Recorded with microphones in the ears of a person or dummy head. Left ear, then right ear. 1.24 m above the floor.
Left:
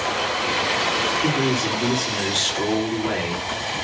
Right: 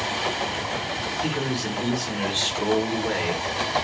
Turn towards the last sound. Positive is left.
turn(degrees=40)  # may be behind; listen again after turning